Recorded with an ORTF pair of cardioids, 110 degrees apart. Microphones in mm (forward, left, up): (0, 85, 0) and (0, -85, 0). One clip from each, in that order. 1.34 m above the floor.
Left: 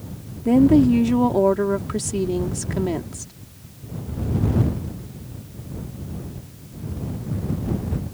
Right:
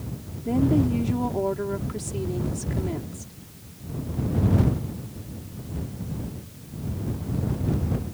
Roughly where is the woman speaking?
Ahead left.